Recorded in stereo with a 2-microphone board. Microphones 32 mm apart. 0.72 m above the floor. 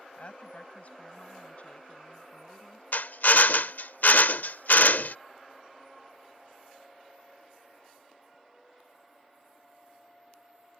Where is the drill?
70° left (ahead or behind).